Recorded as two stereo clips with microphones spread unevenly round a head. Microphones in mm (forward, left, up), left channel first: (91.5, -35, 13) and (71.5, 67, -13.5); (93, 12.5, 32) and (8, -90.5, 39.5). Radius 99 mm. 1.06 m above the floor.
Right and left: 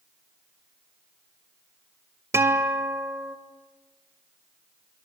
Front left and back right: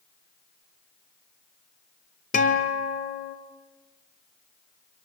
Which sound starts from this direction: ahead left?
A guitar, at 2.3 s.